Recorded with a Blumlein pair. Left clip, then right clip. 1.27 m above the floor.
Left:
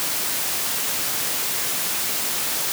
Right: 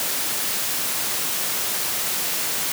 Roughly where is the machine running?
No machine running in this recording.